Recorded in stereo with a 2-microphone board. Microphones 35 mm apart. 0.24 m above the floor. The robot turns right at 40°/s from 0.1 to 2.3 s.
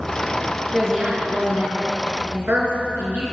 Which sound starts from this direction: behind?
A woman speaking, at 0.7 s.